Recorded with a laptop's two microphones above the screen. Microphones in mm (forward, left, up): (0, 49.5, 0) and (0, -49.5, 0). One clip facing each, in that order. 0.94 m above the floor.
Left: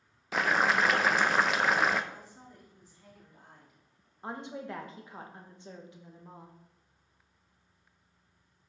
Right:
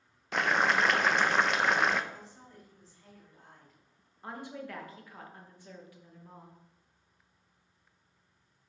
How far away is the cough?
I don't hear a cough.